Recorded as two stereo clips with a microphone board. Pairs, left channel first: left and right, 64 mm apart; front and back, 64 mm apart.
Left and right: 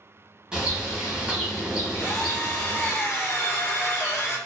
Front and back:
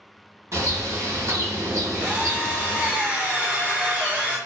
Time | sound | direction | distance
0.5 | a bird | 160° right | 0.9 m
1.9 | a drill | 125° left | 0.9 m